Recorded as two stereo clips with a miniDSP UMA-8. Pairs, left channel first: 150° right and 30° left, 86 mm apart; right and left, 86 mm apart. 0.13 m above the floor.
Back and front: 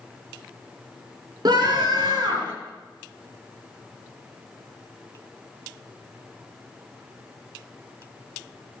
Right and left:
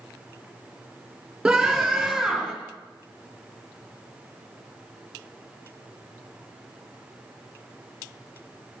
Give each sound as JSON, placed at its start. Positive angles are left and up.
{"t": 1.4, "sound": "a scream", "azimuth_deg": 5, "distance_m": 3.0}